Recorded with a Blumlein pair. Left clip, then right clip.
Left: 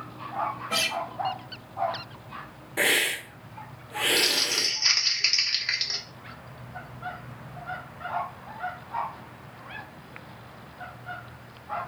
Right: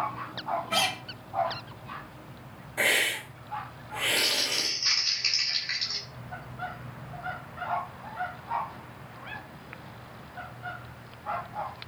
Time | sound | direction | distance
0.7 | a guitar | 70° left | 1.3 m
2.8 | a hiss | 35° left | 1.1 m
4.2 | crumpling | 40° left | 1.0 m